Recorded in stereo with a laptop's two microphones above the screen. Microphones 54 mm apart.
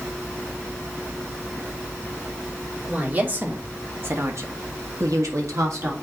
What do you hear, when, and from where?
2.9 s a woman speaking: 30° right (ahead or behind), 2.5 m; by 5.9 s 60° right (ahead or behind), 1.6 m